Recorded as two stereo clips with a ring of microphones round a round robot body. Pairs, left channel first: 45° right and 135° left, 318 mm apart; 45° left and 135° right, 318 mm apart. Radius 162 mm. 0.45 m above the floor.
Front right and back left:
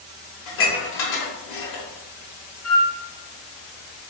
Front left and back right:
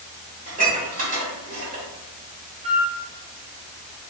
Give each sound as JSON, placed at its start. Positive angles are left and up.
{"t": 0.5, "sound": "dishes clattering", "azimuth_deg": -70, "distance_m": 1.2}
{"t": 2.6, "sound": "a flute", "azimuth_deg": -70, "distance_m": 1.8}